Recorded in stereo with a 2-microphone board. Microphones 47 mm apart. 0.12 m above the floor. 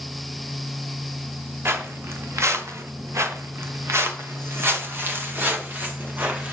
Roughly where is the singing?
No singing in this recording.